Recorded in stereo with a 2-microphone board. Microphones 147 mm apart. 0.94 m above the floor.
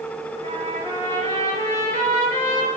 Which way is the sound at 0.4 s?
55° right (ahead or behind).